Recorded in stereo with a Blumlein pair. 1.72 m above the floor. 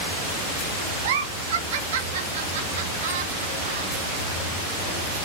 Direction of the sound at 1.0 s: 55° right.